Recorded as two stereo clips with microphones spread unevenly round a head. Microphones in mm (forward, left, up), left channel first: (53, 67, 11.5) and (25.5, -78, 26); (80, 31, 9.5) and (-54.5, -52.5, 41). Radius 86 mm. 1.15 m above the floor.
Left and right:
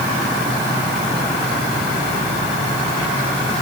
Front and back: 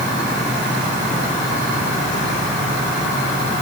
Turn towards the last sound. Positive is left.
No sound to turn to.